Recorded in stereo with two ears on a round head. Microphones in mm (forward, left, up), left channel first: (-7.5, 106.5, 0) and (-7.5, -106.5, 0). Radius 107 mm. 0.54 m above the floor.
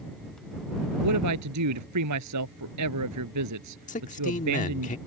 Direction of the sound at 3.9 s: 35° left (ahead or behind).